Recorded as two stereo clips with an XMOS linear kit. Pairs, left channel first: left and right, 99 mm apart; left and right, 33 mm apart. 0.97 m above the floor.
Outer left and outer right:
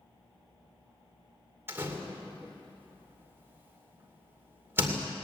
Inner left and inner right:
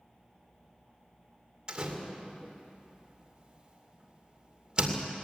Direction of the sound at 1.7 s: 25° right (ahead or behind).